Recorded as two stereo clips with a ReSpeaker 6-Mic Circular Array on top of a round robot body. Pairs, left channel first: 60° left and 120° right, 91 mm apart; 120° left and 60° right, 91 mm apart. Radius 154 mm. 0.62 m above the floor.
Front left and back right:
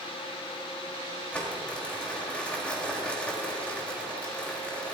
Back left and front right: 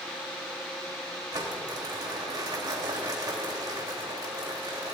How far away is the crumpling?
About 3.5 m.